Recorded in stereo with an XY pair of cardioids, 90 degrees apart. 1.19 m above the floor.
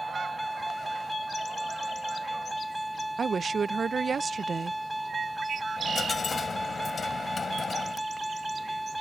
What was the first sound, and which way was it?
A vehicle, 5° right.